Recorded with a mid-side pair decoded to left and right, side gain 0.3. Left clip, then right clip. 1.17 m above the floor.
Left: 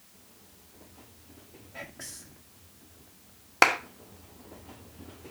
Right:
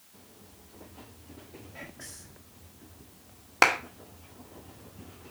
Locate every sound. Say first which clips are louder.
1.7 s whispering: left 4 dB; 40° left, 1.5 m
3.6 s a clap: left 1 dB; 10° left, 1.7 m